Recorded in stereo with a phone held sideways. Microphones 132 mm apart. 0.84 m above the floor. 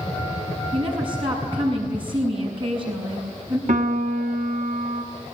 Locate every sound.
0.7 s a woman speaking: 40° right (ahead or behind), 7 m
3.7 s a piano: 65° right (ahead or behind), 2.5 m